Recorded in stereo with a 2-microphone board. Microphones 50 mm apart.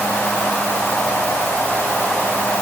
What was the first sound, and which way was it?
Only background noise.